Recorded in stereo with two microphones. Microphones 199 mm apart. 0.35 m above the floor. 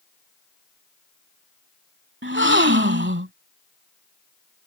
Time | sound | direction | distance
2.2 | a gasp | 70° right (ahead or behind) | ?